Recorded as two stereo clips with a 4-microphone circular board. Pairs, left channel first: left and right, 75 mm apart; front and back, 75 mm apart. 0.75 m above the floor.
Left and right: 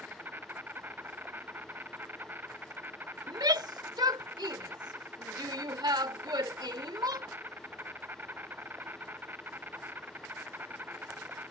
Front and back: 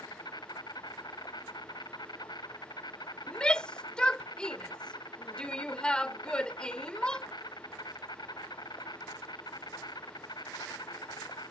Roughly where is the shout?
Right.